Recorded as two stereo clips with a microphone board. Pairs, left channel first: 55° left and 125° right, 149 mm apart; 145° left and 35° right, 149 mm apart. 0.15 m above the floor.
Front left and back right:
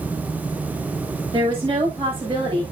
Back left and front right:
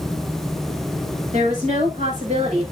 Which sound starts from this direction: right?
A woman speaking, at 1.3 s.